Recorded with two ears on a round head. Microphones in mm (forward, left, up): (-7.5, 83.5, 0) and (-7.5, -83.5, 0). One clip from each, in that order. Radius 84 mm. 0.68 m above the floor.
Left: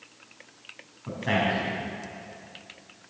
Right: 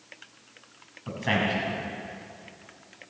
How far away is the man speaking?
About 4.5 m.